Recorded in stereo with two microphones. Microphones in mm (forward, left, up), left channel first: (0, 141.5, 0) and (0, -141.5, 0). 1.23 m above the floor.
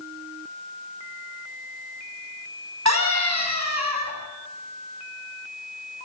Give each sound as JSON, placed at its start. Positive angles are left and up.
{"t": 2.9, "sound": "a scream", "side_deg": -70, "distance_m": 9.0}